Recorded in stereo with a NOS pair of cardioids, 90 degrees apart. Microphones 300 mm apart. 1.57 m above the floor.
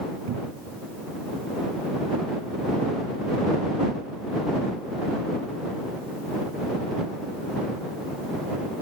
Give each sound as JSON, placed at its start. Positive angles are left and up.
{"t": 0.3, "sound": "a cupboard door", "azimuth_deg": -60}